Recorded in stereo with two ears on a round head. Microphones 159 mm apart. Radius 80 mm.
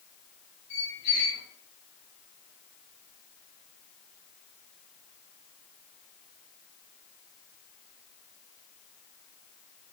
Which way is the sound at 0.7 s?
30° left (ahead or behind).